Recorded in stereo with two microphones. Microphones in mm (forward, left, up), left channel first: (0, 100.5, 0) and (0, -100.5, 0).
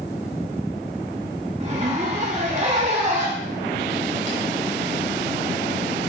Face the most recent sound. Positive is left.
turn(degrees=-35)  # may be behind; listen again after turning